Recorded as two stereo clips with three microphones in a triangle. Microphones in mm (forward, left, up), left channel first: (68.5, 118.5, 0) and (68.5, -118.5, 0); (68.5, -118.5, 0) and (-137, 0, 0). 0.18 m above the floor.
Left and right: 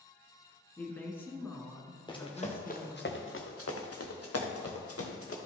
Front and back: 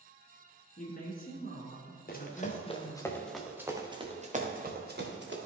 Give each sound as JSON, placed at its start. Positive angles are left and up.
{"t": 0.8, "sound": "a woman speaking", "azimuth_deg": 10, "distance_m": 1.8}
{"t": 2.1, "sound": "running footsteps", "azimuth_deg": 20, "distance_m": 1.8}